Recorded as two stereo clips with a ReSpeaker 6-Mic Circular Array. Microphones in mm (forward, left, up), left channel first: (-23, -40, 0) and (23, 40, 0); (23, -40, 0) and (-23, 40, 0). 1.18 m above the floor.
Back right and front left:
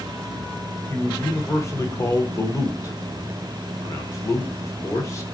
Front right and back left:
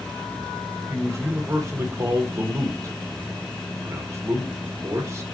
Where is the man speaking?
Straight behind, 0.7 m.